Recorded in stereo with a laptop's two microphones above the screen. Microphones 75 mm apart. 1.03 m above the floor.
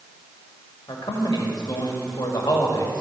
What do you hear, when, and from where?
0.9 s a man speaking: 75° left (ahead or behind), 2.0 m